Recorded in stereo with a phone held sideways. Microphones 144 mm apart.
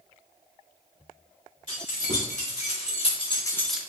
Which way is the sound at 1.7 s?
60° left (ahead or behind).